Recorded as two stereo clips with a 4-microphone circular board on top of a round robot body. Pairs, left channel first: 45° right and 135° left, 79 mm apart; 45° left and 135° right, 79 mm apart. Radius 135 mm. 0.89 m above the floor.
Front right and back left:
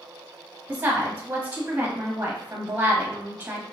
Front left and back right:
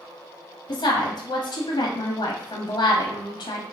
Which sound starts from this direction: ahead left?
A woman speaking, at 0.7 s.